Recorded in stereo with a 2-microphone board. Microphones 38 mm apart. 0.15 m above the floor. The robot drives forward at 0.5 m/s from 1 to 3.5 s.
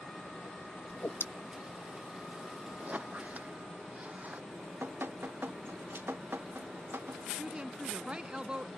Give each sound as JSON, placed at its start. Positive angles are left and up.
{"t": 0.9, "sound": "a whoosh", "side_deg": 65}
{"t": 2.8, "sound": "a squeak", "side_deg": -50}
{"t": 4.5, "sound": "dripping", "side_deg": -80}
{"t": 7.3, "sound": "a woman speaking", "side_deg": -30}